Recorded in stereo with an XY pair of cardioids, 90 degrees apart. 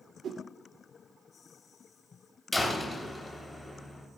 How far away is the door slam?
About 3 m.